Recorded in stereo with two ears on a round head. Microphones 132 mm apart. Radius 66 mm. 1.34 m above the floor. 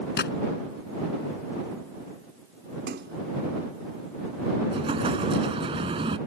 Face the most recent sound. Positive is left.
turn(degrees=-35)  # may be behind; listen again after turning